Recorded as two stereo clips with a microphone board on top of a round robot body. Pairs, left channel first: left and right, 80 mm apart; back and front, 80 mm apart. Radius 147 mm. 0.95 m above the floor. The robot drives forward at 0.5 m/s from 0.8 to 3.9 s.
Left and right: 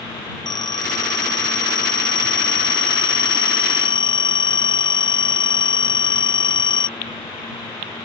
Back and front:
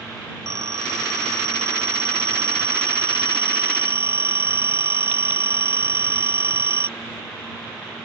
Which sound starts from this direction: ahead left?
A phone ringing, at 0.5 s.